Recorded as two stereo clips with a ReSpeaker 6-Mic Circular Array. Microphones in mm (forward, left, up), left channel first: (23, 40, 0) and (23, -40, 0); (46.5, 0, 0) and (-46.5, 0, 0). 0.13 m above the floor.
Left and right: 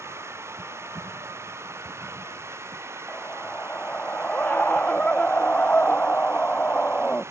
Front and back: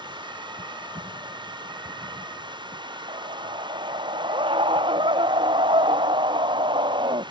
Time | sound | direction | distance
0.0 | running water | 145° right | ?
3.1 | a scream | 160° left | ?